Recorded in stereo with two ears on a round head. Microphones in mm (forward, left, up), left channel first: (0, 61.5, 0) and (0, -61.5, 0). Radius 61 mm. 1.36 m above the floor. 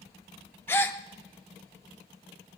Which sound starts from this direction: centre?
A gasp, at 0.7 s.